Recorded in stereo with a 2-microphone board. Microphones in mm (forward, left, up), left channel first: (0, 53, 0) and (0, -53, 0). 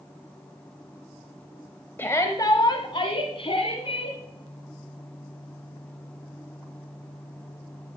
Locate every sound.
2.0 s a shout: 20° left (ahead or behind), 1.1 m; by 4.2 s 70° left (ahead or behind), 2.5 m